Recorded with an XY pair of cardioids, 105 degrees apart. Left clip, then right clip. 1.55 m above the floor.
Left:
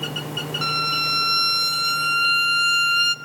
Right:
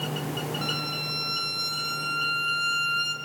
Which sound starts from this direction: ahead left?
A violin, at 0.6 s.